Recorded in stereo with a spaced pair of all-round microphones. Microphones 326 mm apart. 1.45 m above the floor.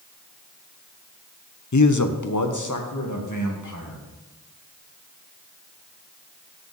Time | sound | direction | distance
1.7 | a man speaking | 60° left (ahead or behind) | 0.6 m